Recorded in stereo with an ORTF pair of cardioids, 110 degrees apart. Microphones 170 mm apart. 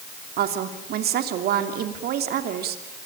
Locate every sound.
0.4 s a woman speaking: 70° right, 3 m